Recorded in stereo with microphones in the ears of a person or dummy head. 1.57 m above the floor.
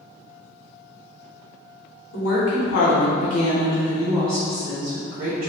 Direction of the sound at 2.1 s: 70° left (ahead or behind).